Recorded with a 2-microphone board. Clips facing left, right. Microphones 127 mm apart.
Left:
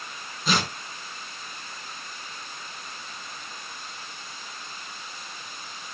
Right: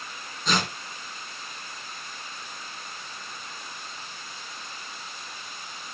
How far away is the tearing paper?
About 5.5 m.